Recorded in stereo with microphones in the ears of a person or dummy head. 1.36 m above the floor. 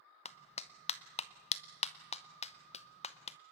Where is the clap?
35° left (ahead or behind), 0.8 m.